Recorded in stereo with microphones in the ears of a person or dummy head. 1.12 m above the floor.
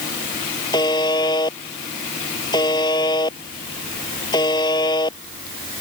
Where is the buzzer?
25° left (ahead or behind).